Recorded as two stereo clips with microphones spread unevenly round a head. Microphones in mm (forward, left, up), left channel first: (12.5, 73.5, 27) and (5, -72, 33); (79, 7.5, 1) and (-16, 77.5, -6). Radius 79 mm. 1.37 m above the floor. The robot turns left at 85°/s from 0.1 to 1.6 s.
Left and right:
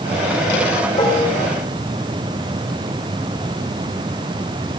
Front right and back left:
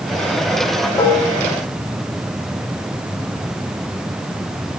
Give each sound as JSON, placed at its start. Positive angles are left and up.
{"t": 1.0, "sound": "dishes clattering", "azimuth_deg": 25, "distance_m": 2.5}